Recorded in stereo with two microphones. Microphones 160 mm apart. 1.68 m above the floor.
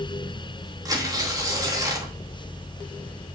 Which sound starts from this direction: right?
Tearing paper, at 0.8 s.